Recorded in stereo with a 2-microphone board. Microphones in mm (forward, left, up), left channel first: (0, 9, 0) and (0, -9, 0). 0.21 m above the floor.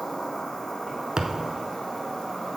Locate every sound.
0.0 s an insect: 60° left (ahead or behind), 2.5 m
1.2 s a thud: 30° right (ahead or behind), 0.5 m